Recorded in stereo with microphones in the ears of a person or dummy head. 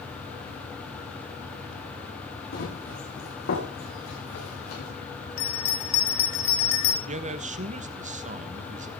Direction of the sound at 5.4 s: 55° left (ahead or behind).